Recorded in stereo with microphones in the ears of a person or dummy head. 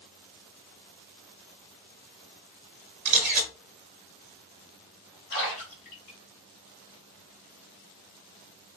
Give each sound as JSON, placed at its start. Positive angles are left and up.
{"t": 3.0, "sound": "a camera shutter", "side_deg": -40, "distance_m": 0.9}
{"t": 5.3, "sound": "a splash", "side_deg": 30, "distance_m": 0.9}